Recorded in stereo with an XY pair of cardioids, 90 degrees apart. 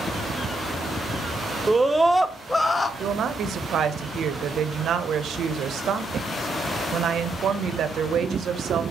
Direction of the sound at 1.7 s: 20° right.